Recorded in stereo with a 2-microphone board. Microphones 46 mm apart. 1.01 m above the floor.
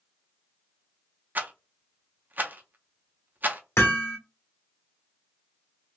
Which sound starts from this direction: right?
A rattle, at 1.4 s.